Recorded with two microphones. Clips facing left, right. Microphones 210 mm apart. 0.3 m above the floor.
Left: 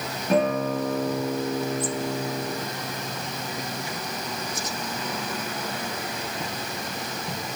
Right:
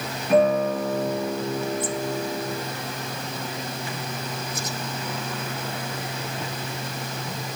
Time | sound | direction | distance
0.3 | a guitar | 40° left (ahead or behind) | 3.5 m